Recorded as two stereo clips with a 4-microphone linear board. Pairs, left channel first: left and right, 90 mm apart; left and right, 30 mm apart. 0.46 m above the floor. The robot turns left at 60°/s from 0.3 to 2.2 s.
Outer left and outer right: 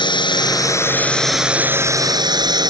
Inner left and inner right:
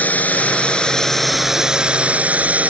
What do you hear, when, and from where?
0.0 s a drone: 65° left; by 2.7 s 50° right